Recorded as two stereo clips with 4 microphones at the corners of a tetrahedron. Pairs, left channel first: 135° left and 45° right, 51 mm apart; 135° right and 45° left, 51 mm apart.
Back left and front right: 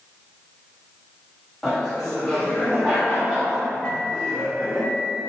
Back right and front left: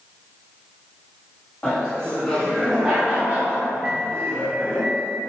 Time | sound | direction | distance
1.6 | laughter | 140° right | 1.2 m
3.8 | a microwave | 80° left | 0.8 m